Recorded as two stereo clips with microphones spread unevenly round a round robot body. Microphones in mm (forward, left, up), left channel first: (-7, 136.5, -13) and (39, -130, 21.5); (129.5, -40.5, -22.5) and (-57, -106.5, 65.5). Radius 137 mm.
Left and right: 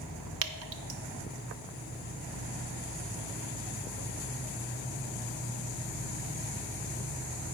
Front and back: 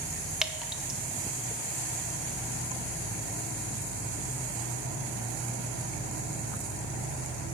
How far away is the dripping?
About 0.7 m.